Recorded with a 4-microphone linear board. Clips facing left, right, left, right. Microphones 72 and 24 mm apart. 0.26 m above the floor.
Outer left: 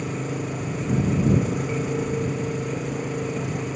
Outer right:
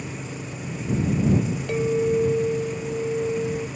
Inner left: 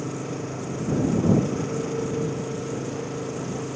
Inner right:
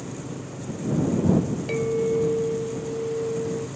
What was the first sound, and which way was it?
An engine running, 55° left (ahead or behind).